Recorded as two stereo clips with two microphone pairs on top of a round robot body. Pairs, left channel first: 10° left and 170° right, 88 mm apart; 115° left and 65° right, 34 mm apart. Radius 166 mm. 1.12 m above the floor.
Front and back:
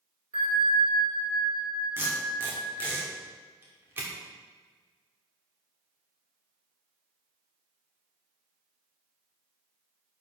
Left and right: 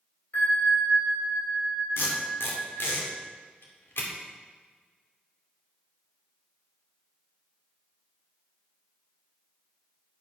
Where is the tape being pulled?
120° left, 2.5 m.